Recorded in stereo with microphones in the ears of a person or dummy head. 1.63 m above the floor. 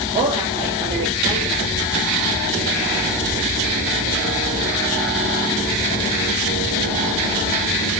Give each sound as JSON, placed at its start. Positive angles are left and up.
{"t": 0.1, "sound": "a woman speaking", "side_deg": -30, "distance_m": 3.0}